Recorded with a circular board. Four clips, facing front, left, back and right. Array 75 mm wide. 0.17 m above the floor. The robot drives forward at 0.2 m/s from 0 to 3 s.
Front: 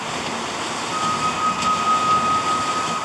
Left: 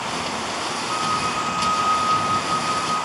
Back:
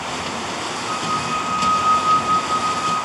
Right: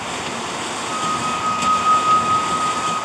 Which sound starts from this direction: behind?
A flute, at 0.9 s.